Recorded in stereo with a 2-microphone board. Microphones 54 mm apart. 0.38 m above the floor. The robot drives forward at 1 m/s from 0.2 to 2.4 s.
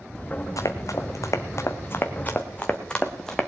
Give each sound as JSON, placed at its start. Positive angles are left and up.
{"t": 0.6, "sound": "running footsteps", "side_deg": 80, "distance_m": 1.7}